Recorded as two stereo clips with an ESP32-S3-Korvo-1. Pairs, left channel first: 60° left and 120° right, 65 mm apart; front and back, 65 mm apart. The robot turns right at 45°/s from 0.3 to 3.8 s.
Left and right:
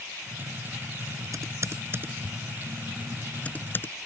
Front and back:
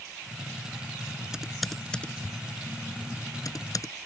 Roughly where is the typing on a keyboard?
Right.